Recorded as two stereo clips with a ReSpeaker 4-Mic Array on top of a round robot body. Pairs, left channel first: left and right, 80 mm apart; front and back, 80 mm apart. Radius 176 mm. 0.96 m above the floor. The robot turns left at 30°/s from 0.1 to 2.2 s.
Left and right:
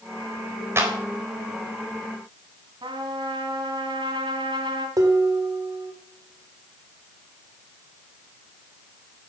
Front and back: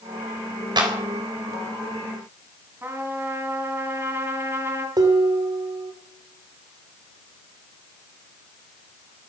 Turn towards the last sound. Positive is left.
turn(degrees=-140)